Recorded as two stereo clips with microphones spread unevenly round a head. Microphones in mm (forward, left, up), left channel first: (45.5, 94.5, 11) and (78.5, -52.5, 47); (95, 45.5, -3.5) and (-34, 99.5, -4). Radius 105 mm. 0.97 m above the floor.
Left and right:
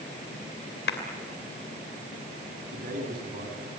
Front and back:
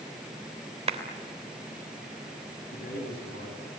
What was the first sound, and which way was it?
A clap, 115° left.